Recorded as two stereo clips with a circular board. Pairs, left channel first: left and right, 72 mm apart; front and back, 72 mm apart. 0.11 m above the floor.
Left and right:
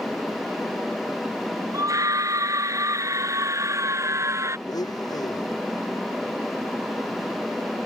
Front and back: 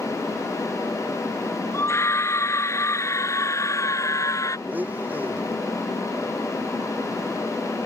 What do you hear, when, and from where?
1.7 s a scream: 50° right; by 4.6 s 45° right
4.7 s a blender: 115° left